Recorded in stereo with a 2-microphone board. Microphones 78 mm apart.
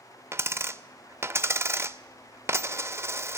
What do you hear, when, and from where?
0.3 s a dropped coin: 35° right (ahead or behind), 0.5 m